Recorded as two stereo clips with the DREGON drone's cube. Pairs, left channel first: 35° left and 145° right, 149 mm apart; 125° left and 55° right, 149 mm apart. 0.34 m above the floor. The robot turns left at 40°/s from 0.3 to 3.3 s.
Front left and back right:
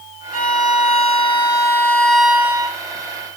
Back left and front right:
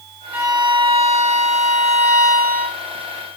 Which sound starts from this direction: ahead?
A violin, at 0.3 s.